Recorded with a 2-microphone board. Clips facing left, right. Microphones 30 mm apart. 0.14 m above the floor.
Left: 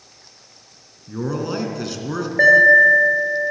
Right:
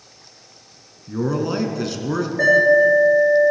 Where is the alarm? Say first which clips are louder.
Left 4 dB; 40° left (ahead or behind), 2.5 m.